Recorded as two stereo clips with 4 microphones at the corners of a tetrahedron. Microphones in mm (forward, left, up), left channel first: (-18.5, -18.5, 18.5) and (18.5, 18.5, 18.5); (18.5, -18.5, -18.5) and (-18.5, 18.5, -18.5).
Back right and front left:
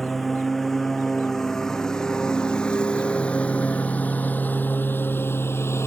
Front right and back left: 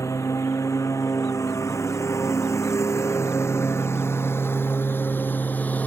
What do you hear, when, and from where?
0.0 s a lawn mower: 50° right; by 5.9 s 100° right